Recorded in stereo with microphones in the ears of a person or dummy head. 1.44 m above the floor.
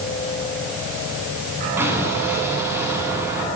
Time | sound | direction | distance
1.8 | an explosion | 10° right (ahead or behind) | 9 m